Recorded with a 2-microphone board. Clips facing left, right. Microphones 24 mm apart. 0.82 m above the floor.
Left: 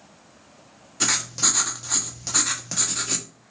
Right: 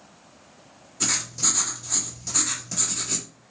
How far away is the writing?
About 0.9 m.